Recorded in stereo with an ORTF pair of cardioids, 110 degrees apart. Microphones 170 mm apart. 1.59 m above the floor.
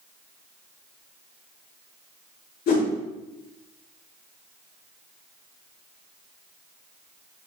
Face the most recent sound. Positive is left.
turn(degrees=65)